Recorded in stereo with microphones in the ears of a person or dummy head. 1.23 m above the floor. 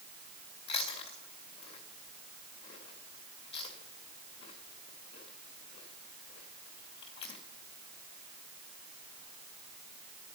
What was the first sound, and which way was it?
Chewing, 40° left (ahead or behind).